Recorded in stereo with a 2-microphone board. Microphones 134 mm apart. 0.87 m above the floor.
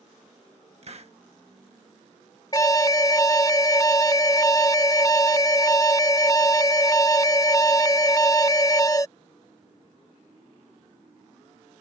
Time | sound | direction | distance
0.8 | a hiss | 50° right (ahead or behind) | ?
2.5 | an alarm | 25° left (ahead or behind) | ?